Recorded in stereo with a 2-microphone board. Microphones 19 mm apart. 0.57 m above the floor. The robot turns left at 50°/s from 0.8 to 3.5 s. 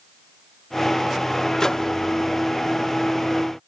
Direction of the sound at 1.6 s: 30° left (ahead or behind).